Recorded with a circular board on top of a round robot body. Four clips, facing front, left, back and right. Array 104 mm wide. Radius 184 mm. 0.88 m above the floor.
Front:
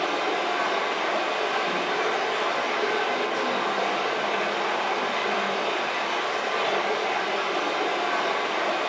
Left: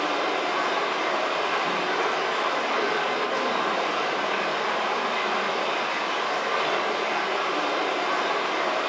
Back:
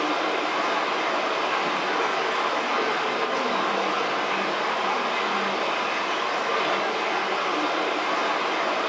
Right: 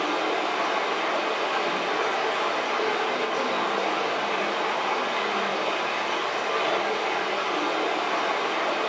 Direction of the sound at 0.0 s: 140° left.